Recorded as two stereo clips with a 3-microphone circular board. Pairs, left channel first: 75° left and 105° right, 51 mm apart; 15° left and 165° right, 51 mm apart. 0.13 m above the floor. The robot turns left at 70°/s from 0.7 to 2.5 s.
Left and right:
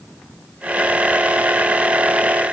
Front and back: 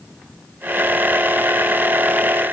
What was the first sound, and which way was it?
Only background noise.